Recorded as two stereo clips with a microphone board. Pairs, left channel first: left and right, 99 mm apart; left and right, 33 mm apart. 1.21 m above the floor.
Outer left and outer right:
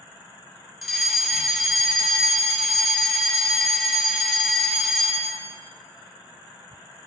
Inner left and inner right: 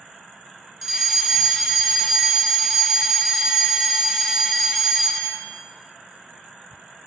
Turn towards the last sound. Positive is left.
turn(degrees=0)  # may be behind; listen again after turning